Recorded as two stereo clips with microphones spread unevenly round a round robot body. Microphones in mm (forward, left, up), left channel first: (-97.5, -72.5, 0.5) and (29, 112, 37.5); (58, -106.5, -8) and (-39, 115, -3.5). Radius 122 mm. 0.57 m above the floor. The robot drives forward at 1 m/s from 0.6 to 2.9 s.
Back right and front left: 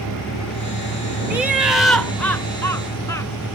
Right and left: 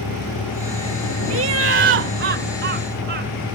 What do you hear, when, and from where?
0.0 s a vehicle: 95° right; by 3.6 s 100° right
1.3 s laughter: 145° left; by 3.6 s 160° left